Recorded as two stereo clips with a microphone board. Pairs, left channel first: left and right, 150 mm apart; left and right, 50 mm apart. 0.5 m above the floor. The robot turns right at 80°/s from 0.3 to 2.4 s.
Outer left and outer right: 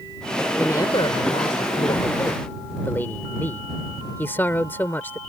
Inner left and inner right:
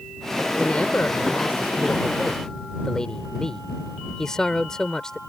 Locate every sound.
0.6 s a man speaking: 15° left; by 5.2 s 160° left